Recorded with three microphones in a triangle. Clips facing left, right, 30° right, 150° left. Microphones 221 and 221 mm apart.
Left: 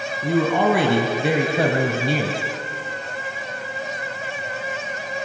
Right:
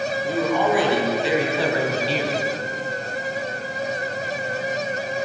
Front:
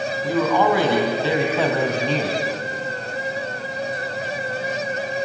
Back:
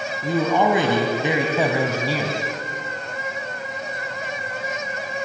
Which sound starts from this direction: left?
A man speaking, at 0.2 s.